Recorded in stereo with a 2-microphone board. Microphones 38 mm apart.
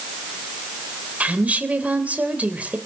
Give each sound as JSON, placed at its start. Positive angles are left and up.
{"t": 1.2, "sound": "a woman speaking", "side_deg": -40, "distance_m": 2.5}